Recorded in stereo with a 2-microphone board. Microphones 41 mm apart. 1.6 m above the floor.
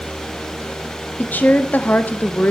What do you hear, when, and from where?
1.2 s a woman speaking: 45° left (ahead or behind), 0.6 m